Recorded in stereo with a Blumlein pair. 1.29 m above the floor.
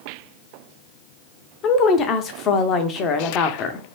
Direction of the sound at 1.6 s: 30° left.